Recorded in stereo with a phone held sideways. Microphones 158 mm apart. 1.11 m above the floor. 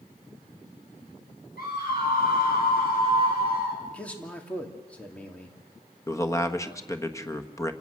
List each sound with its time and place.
1.6 s a scream: 75° left (ahead or behind), 7 m; by 3.8 s 85° left, 7.5 m
3.9 s a man speaking: 10° left (ahead or behind), 2.5 m
6.1 s a man speaking: 20° left (ahead or behind), 1.4 m